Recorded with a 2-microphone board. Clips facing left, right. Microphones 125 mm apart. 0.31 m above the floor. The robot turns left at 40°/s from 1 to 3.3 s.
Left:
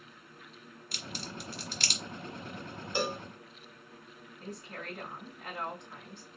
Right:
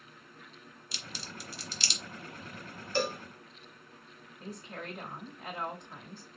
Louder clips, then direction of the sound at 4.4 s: Right 1 dB; 5° right (ahead or behind).